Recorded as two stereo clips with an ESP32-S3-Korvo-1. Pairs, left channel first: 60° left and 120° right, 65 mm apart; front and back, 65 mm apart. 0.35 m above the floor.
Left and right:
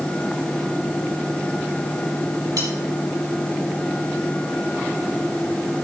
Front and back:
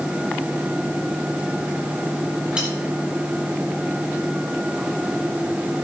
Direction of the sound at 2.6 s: 105° right.